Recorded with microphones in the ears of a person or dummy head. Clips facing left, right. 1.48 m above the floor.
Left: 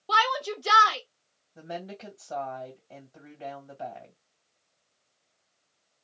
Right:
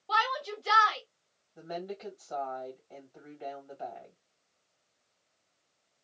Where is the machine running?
I don't hear a machine running.